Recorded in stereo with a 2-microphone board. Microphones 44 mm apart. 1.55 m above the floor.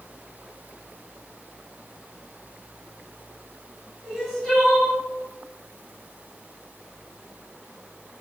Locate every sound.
4.0 s crying: 15° left (ahead or behind), 1.9 m